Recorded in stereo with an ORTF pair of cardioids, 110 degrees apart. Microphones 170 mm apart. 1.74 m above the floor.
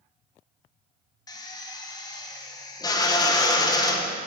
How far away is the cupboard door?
I don't hear a cupboard door.